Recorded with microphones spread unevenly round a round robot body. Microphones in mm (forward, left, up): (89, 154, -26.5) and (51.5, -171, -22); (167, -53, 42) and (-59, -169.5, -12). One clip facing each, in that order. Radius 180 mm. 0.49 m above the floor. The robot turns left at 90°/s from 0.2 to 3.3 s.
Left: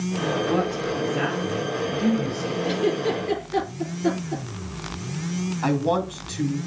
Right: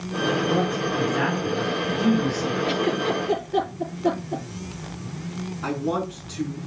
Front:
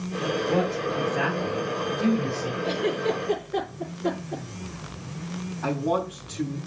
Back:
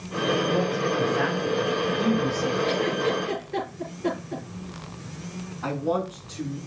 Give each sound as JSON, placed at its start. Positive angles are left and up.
{"t": 0.5, "sound": "a man speaking", "azimuth_deg": 50, "distance_m": 4.0}
{"t": 2.6, "sound": "a giggle", "azimuth_deg": -160, "distance_m": 6.5}
{"t": 5.6, "sound": "a man speaking", "azimuth_deg": 110, "distance_m": 3.0}